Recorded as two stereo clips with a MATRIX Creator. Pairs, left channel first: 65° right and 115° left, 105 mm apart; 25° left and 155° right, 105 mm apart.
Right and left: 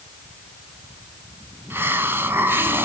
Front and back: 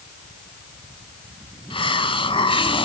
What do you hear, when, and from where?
1.7 s a hiss: 45° left, 1.3 m